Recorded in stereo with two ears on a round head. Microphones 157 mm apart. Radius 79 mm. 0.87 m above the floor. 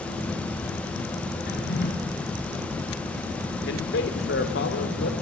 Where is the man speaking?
70° left (ahead or behind), 3 m.